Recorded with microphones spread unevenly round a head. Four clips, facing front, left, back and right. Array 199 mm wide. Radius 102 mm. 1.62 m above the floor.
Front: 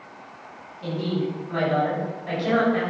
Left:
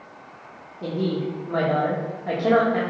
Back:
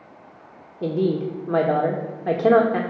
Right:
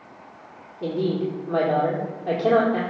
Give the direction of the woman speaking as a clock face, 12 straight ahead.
6 o'clock.